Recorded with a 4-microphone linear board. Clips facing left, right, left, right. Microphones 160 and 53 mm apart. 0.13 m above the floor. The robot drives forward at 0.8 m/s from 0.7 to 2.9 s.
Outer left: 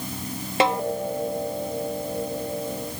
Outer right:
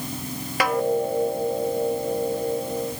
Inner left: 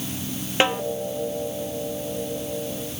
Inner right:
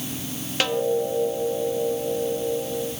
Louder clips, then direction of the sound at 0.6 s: Outer left 1 dB, inner left 2 dB; 25° left (ahead or behind).